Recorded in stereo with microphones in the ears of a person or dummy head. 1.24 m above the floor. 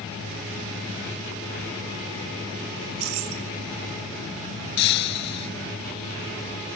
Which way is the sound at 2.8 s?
85° right.